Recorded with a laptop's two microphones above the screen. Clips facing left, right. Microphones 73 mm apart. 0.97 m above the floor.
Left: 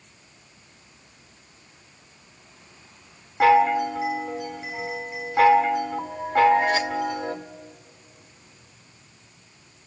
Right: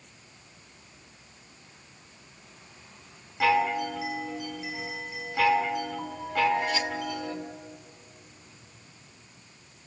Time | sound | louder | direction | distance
3.4 | a chime | left 7 dB | 40° left (ahead or behind) | 2 m